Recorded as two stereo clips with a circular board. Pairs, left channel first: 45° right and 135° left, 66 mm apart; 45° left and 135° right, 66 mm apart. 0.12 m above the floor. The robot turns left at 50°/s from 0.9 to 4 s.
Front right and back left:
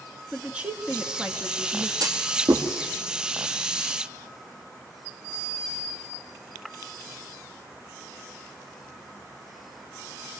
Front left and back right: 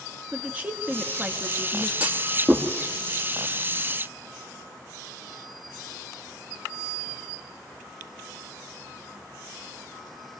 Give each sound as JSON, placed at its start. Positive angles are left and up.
{"t": 0.3, "sound": "a woman speaking", "azimuth_deg": -170, "distance_m": 1.5}
{"t": 2.0, "sound": "a clunk", "azimuth_deg": 155, "distance_m": 3.0}